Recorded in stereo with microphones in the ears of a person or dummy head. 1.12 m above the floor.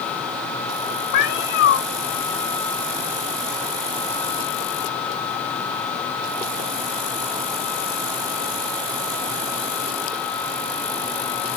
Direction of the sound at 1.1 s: 55° left (ahead or behind).